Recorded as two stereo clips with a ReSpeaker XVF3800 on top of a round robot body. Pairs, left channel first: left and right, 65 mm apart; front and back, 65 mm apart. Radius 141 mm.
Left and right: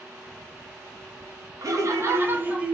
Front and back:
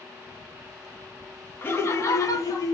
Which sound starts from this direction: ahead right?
Laughter, at 1.6 s.